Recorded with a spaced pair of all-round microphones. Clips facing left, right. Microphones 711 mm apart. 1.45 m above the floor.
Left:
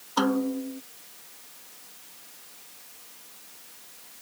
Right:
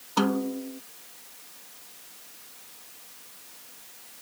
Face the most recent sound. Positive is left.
turn(degrees=-60)  # may be behind; listen again after turning